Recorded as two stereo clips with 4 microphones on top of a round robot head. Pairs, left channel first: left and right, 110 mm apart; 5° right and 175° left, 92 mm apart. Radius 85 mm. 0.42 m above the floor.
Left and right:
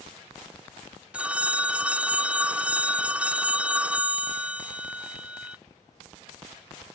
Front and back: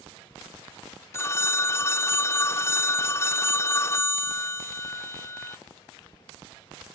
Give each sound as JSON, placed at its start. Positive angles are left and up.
{"t": 1.1, "sound": "a phone ringing", "azimuth_deg": -25}